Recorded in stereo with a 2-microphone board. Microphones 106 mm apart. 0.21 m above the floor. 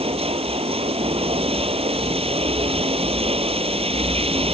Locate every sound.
0.0 s running water: 65° right (ahead or behind)